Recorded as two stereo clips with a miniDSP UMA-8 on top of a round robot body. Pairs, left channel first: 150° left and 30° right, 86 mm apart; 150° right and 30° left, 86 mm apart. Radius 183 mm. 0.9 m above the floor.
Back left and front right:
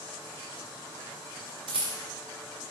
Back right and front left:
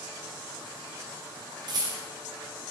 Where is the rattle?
10° right, 0.6 m.